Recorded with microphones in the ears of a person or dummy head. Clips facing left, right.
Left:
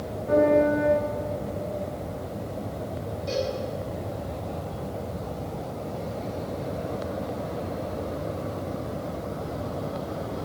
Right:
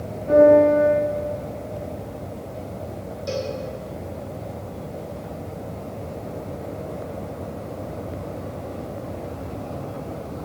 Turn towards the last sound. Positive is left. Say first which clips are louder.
# right 1 dB
turn(degrees=-55)  # may be behind; listen again after turning